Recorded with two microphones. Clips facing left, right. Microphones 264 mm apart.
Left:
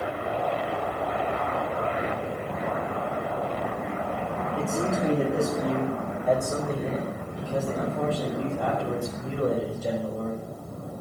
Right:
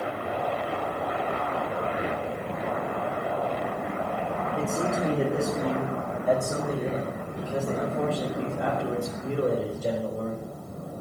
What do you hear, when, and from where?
4.6 s a man speaking: 5° left (ahead or behind), 3 m; by 10.4 s 35° right (ahead or behind), 5 m